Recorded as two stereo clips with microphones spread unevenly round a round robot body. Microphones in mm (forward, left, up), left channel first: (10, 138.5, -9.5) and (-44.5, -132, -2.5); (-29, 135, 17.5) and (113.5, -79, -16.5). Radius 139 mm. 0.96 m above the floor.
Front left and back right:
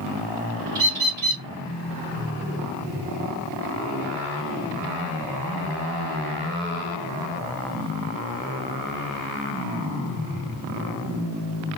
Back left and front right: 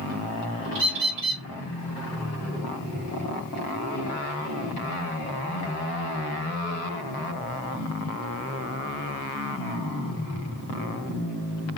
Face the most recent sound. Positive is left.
turn(degrees=-70)